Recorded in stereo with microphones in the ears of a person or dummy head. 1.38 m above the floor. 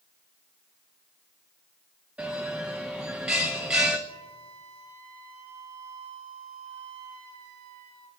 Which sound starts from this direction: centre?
A bell, at 2.2 s.